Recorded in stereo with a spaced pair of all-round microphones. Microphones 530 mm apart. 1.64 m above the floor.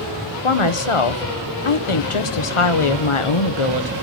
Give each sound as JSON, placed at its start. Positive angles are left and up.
{"t": 0.4, "sound": "a woman speaking", "side_deg": 70, "distance_m": 1.1}